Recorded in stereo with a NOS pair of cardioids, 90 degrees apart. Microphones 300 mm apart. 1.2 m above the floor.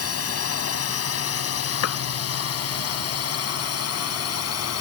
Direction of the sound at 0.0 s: 50° left.